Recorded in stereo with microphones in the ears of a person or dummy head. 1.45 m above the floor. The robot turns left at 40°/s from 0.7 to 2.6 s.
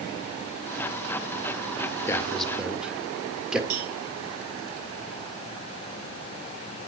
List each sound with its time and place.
2.1 s a man speaking: 10° left (ahead or behind), 1.9 m; by 3.6 s 10° right (ahead or behind), 1.9 m
3.7 s a cowbell: 55° right (ahead or behind), 2.5 m